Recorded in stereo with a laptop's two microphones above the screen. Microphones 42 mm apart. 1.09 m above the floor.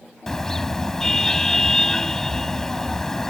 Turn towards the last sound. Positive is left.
turn(degrees=10)  # may be behind; listen again after turning